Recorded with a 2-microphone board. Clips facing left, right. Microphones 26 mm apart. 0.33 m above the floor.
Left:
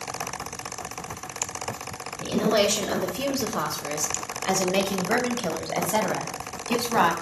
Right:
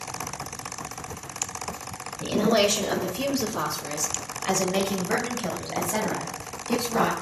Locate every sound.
2.2 s a woman speaking: 5° right (ahead or behind), 1.5 m; by 7.1 s 55° left (ahead or behind), 2.5 m